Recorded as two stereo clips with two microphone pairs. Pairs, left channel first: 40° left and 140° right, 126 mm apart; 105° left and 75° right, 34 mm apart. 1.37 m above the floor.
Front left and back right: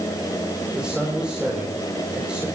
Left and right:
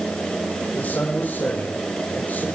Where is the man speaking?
135° left, 4.5 m.